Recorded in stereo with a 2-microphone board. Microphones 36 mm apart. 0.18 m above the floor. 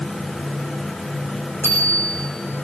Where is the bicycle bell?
55° left (ahead or behind), 9 m.